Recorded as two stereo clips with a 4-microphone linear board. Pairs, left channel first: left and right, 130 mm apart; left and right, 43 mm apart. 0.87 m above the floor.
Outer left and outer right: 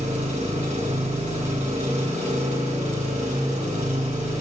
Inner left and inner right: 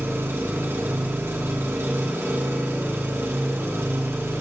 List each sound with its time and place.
0.0 s an engine running: 70° right (ahead or behind), 2.5 m